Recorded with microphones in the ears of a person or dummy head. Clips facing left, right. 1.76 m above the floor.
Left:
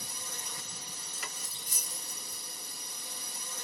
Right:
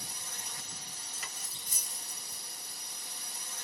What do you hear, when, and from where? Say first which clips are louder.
0.0 s a drone: left 2 dB; 85° left
1.1 s cutlery clinking: left 4 dB; 50° left (ahead or behind)